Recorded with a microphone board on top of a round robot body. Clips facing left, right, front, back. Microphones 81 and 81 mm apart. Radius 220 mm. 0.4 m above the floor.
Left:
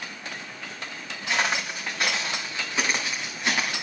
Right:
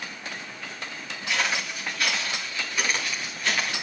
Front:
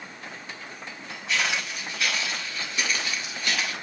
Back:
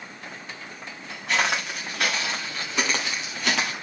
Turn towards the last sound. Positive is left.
turn(degrees=165)